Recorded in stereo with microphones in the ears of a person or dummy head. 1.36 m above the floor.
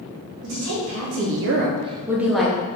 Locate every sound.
0.4 s a woman speaking: 70° right (ahead or behind), 0.9 m; by 2.6 s 5° left (ahead or behind), 0.8 m